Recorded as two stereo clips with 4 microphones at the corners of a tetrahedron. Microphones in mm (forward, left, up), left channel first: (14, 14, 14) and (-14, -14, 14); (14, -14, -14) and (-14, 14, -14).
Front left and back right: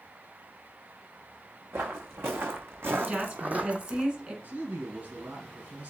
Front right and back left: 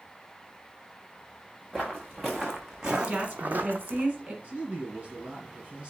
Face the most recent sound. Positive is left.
turn(degrees=-165)